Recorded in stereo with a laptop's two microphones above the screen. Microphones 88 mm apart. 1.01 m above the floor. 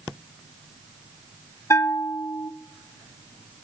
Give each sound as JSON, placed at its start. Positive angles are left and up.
{"t": 1.7, "sound": "a bell", "side_deg": 35, "distance_m": 1.1}